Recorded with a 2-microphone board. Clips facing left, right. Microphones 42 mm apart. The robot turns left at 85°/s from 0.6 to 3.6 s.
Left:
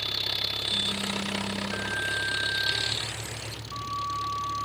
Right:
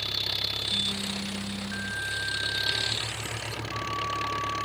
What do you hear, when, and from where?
0.0 s an engine running: 175° left; by 4.7 s 80° right